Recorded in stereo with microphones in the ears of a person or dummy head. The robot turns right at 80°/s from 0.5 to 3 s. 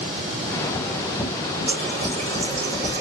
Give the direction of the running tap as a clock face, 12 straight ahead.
6 o'clock.